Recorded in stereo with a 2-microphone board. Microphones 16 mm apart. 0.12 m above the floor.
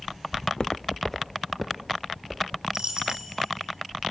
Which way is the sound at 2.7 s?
45° right (ahead or behind).